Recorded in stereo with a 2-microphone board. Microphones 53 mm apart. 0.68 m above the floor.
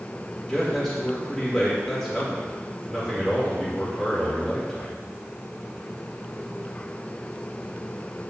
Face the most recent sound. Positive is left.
turn(degrees=10)  # may be behind; listen again after turning